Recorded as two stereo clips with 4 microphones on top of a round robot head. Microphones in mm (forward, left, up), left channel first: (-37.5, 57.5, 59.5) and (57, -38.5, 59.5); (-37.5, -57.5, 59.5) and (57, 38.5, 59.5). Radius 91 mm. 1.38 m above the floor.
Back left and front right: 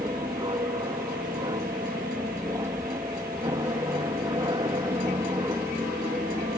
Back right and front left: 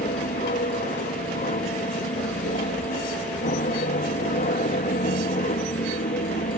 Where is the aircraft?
110° right.